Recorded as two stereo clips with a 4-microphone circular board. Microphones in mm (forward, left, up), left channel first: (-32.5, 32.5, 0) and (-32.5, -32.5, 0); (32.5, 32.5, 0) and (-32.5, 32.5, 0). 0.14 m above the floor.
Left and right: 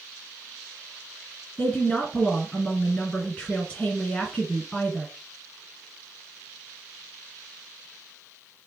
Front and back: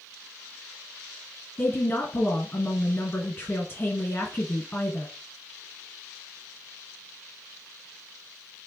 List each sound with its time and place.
1.6 s a woman speaking: 35° left, 1.8 m